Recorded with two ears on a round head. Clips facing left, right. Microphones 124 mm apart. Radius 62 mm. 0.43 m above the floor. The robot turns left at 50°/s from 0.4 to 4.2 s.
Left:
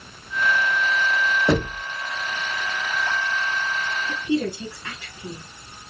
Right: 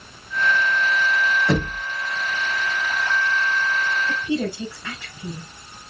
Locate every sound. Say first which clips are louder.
1.5 s knocking: left 1 dB; 65° left (ahead or behind), 2.5 m; by 1.8 s 55° left (ahead or behind), 2.5 m
4.1 s a woman speaking: even; 55° right (ahead or behind), 2.5 m; by 5.5 s 60° right (ahead or behind), 2.5 m